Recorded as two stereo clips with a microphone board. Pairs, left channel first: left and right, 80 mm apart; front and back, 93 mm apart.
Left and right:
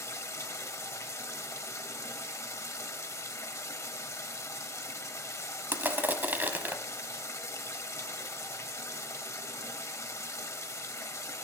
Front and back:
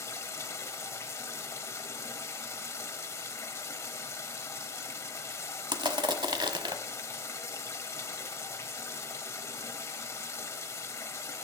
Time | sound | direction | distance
0.0 | running water | 50° left | 1.0 m
5.7 | crushing | 155° right | 0.9 m